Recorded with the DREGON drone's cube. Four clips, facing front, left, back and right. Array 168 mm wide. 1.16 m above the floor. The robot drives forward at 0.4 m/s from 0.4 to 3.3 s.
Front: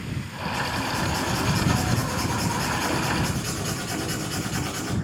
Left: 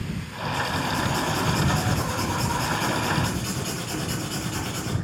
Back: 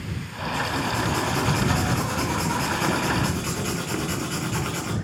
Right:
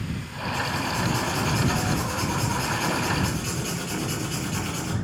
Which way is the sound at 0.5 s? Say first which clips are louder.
Left 1 dB, back 2 dB; 175° left.